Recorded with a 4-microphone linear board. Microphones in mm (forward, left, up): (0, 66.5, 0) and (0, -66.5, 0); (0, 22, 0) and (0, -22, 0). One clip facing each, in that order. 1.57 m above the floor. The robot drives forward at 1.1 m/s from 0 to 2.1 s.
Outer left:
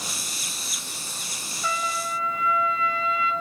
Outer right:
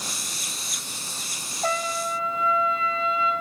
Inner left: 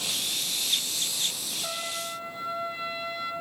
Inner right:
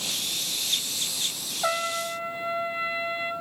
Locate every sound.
1.6 s a trumpet: 55° right (ahead or behind), 0.6 m; by 3.3 s 30° right (ahead or behind), 1.0 m